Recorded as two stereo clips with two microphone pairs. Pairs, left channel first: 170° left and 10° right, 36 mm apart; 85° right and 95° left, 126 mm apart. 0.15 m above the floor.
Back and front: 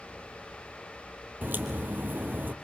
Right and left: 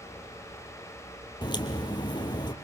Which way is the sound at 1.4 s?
35° right.